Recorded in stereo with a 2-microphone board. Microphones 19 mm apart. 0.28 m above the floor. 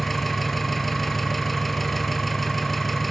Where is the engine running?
5° left (ahead or behind), 3.5 m.